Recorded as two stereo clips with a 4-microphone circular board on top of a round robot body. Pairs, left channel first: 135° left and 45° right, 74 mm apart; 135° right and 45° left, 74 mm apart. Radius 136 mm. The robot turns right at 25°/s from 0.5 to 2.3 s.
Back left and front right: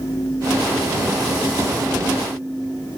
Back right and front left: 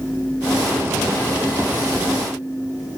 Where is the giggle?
No giggle in this recording.